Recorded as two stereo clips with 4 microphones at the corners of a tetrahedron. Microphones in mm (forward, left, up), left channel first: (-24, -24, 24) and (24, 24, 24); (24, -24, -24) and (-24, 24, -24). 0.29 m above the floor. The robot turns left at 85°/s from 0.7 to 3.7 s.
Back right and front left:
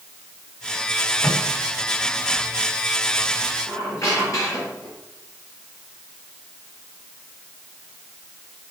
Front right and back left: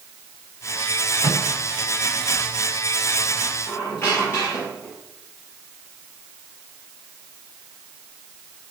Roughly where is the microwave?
Behind left.